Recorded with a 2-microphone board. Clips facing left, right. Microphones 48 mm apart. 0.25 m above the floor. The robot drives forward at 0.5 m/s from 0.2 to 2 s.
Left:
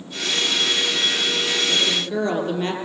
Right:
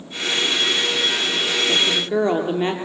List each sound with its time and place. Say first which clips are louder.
1.7 s a woman speaking: right 2 dB; 20° right (ahead or behind), 5.5 m